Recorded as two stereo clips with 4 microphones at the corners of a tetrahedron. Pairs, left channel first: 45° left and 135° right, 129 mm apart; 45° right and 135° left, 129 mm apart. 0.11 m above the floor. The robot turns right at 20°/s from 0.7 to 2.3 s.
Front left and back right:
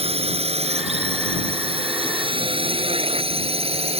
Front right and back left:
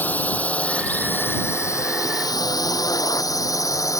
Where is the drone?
120° right; by 4.0 s 105° right.